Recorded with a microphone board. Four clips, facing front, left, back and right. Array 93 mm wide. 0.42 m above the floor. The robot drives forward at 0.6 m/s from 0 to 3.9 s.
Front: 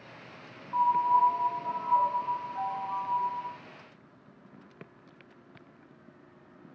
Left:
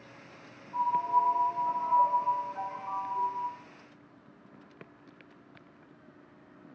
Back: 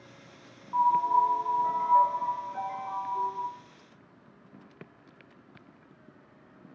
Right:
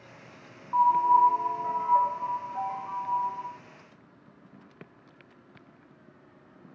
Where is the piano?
95° right, 0.7 m; by 3.5 s 160° right, 1.8 m.